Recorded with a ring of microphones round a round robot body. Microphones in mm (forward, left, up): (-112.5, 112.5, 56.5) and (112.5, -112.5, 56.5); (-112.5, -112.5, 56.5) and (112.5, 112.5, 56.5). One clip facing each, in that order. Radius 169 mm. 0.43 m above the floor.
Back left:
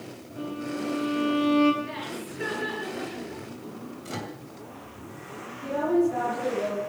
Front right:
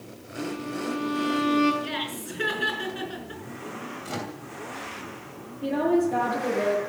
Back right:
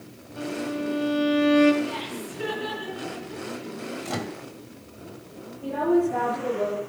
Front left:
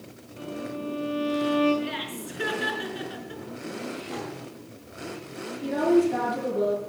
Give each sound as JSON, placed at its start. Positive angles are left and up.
{"t": 0.4, "sound": "a violin", "azimuth_deg": -125, "distance_m": 4.0}
{"t": 1.8, "sound": "laughter", "azimuth_deg": -10, "distance_m": 5.0}
{"t": 4.0, "sound": "a microwave", "azimuth_deg": -135, "distance_m": 2.5}
{"t": 5.6, "sound": "a woman speaking", "azimuth_deg": -10, "distance_m": 9.0}